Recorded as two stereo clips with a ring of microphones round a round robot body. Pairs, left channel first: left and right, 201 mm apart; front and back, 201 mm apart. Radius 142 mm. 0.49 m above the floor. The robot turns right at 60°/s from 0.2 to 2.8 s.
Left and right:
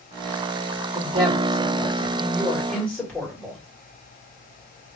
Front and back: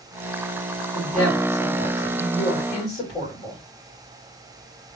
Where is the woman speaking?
100° right, 1.5 m; by 3.6 s 10° left, 1.5 m.